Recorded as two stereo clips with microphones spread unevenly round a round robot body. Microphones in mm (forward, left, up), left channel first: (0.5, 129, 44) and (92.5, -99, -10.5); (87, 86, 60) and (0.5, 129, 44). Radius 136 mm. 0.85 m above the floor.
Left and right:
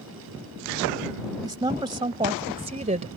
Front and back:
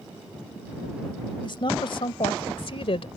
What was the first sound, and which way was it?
A woman speaking, 5° left.